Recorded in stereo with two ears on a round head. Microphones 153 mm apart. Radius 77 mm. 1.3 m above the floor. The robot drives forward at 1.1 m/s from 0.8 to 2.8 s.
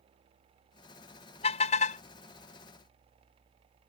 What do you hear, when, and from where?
1.4 s a car horn: 35° left (ahead or behind); by 2.0 s 45° left (ahead or behind)